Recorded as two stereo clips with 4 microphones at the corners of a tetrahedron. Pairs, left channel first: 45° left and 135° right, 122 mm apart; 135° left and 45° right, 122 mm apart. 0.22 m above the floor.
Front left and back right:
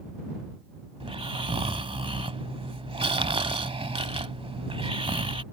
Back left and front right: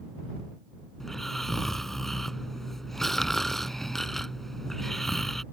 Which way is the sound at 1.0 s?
140° right.